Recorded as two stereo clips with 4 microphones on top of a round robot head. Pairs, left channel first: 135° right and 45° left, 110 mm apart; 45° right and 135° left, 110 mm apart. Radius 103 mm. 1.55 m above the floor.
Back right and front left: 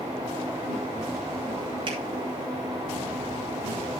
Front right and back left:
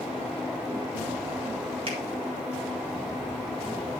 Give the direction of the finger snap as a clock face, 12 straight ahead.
9 o'clock.